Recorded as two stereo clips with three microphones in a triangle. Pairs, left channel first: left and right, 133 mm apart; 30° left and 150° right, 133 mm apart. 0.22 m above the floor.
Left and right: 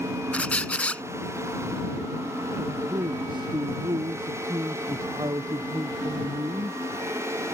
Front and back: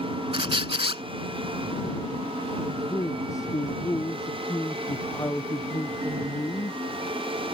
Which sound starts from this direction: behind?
A squeak, at 0.3 s.